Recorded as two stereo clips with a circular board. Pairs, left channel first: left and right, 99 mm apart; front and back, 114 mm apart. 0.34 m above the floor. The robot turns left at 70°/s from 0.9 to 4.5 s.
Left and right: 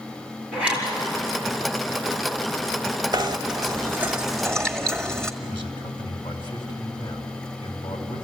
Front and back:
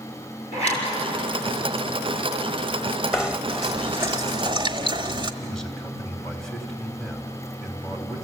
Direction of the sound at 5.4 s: 85° left.